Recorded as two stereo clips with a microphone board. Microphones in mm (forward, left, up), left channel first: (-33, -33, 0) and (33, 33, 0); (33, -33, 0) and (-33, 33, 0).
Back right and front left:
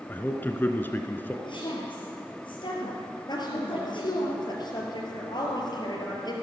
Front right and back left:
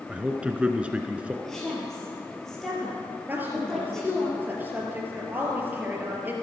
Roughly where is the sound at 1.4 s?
Behind right.